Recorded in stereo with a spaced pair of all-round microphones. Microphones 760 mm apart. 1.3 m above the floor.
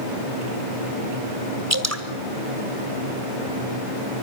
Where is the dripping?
20° right (ahead or behind), 1.8 m.